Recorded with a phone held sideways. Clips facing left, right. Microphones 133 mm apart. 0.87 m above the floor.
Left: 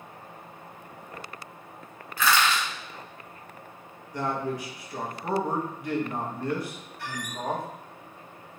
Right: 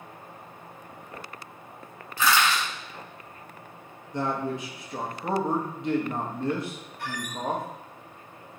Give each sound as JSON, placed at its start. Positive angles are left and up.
{"t": 2.2, "sound": "crushing", "side_deg": -25, "distance_m": 1.9}
{"t": 4.1, "sound": "a man speaking", "side_deg": -20, "distance_m": 0.7}
{"t": 7.0, "sound": "a squeak", "side_deg": -50, "distance_m": 0.7}